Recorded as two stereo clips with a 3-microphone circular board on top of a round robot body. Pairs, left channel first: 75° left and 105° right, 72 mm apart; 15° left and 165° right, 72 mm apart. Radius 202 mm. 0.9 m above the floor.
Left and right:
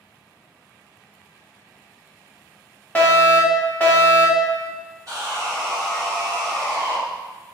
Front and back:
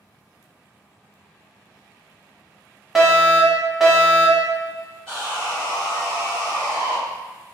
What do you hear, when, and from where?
3.0 s a fire alarm: 110° left, 1.3 m
5.1 s sawing: 65° right, 1.1 m